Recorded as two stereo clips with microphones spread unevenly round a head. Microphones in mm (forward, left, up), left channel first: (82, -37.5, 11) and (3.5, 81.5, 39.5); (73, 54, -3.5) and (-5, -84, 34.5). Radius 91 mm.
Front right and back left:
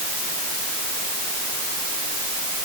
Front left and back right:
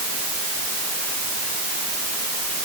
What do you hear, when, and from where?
Only background noise.